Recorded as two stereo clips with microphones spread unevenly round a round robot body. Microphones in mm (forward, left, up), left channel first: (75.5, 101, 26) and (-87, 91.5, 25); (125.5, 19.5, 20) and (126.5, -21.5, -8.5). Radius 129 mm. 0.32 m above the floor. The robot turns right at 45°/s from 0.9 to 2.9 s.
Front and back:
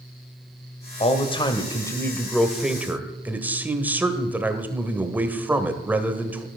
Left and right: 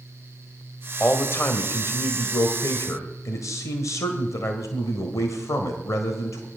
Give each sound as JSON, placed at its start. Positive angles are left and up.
{"t": 1.0, "sound": "a man speaking", "azimuth_deg": 25, "distance_m": 1.8}